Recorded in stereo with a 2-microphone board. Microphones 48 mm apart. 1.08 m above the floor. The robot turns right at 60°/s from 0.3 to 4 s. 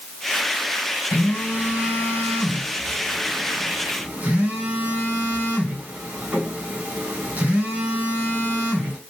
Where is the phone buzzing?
45° left, 3 m; by 9.0 s 145° right, 3 m.